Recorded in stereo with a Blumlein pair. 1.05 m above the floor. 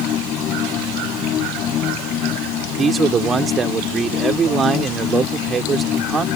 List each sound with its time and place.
0.0 s a machine running: 30° left
2.8 s a man speaking: 20° right